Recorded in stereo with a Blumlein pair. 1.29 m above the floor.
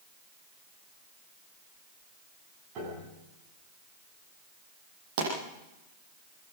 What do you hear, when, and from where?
2.8 s a piano: 35° right, 7.5 m
5.2 s a pop: 50° right, 9 m